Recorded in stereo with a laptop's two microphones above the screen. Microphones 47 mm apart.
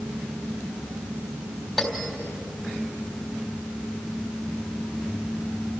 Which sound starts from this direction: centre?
A bell, at 1.8 s.